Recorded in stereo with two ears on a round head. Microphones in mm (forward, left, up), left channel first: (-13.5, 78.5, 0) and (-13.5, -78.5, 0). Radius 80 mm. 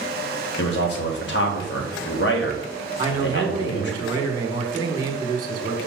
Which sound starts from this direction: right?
A man speaking, at 3.0 s.